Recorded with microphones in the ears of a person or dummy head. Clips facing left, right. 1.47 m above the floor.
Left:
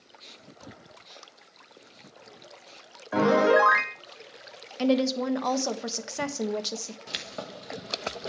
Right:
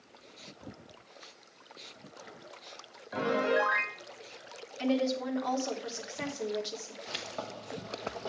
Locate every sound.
3.1 s a piano: 60° left (ahead or behind), 0.6 m
4.8 s a woman speaking: 70° left (ahead or behind), 1.2 m
7.1 s keys jangling: 30° left (ahead or behind), 1.1 m